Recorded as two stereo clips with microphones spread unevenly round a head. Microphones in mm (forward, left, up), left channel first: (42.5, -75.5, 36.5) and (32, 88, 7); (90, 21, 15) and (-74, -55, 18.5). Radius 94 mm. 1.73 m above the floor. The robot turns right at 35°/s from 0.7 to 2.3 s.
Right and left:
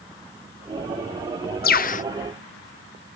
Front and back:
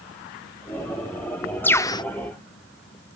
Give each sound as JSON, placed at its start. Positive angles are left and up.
{"t": 1.6, "sound": "a bird", "azimuth_deg": -55}